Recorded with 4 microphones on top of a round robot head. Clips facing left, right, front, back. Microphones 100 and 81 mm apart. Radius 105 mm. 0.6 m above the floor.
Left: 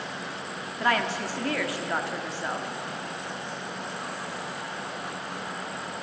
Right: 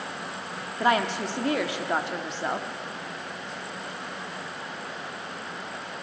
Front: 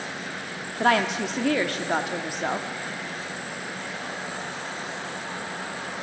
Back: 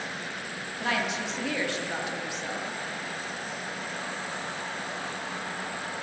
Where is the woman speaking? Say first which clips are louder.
Right 2 dB, front 8 dB; 25° right, 1.4 m.